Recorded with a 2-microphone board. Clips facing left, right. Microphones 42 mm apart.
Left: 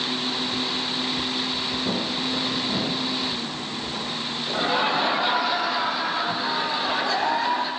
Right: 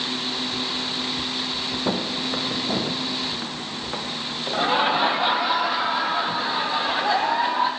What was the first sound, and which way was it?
Footsteps, 70° right (ahead or behind).